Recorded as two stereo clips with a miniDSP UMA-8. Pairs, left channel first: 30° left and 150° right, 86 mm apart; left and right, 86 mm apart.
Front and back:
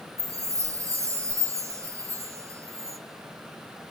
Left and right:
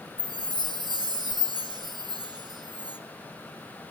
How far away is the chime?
About 1.2 m.